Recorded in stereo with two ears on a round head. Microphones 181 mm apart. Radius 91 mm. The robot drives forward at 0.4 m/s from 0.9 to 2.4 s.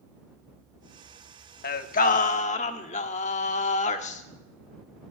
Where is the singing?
50° left (ahead or behind), 0.9 m; by 5.1 s 35° left (ahead or behind), 1.1 m.